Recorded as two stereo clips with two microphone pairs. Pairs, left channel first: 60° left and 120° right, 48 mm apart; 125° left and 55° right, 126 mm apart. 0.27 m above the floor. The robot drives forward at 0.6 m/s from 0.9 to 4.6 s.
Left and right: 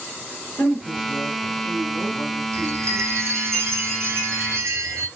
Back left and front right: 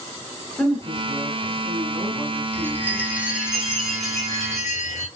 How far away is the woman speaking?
About 3 m.